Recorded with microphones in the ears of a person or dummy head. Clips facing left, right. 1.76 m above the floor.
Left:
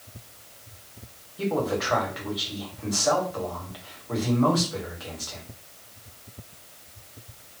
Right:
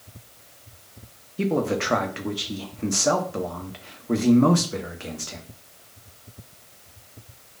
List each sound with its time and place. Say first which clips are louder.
1.4 s a man speaking: right 3 dB; 40° right (ahead or behind), 0.6 m